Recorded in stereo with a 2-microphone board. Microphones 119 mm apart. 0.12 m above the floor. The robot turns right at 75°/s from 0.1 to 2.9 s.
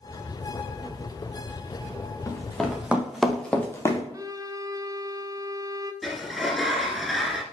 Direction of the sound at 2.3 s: 20° left (ahead or behind).